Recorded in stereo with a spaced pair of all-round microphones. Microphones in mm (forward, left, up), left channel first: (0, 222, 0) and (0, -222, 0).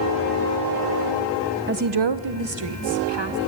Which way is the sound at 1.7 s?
25° right (ahead or behind).